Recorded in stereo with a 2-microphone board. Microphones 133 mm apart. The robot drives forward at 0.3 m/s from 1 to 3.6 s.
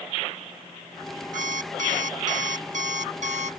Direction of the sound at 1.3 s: 75° right (ahead or behind).